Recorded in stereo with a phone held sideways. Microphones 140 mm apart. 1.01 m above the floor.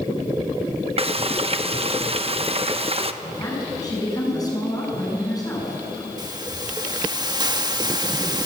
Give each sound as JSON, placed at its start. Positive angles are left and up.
{"t": 1.0, "sound": "frying", "side_deg": -45, "distance_m": 1.0}
{"t": 3.2, "sound": "a woman speaking", "side_deg": 25, "distance_m": 7.5}
{"t": 6.2, "sound": "a hiss", "side_deg": -30, "distance_m": 1.5}